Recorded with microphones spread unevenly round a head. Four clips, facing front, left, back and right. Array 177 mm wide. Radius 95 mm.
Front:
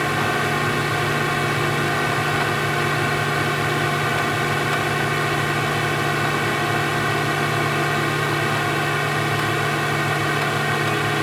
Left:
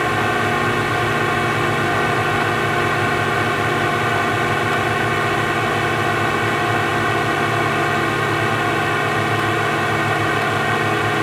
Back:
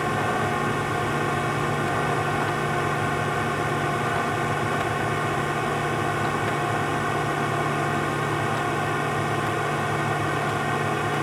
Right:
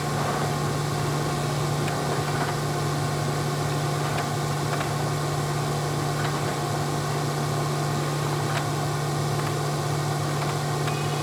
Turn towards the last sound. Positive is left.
turn(degrees=60)